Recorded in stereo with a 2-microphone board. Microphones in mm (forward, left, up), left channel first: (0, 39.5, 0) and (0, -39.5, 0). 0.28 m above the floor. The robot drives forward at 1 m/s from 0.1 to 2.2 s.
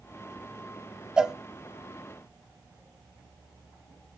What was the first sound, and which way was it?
A cowbell, 10° right (ahead or behind).